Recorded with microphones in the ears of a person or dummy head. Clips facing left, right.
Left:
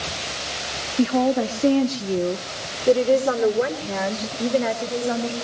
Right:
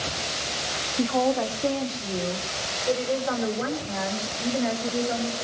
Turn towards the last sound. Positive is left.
turn(degrees=65)  # may be behind; listen again after turning